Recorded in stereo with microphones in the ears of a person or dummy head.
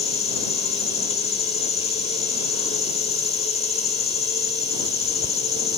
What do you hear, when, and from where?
0.0 s an insect: 35° left (ahead or behind)